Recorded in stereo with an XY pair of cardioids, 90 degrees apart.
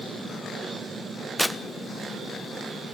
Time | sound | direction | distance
1.4 | tearing paper | 10° left | 1.2 m